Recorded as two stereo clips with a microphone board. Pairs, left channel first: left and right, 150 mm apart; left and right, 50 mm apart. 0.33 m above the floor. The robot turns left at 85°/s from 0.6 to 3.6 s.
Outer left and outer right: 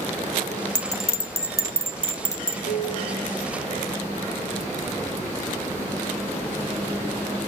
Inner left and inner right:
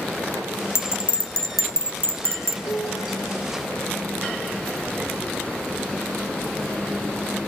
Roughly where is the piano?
Left.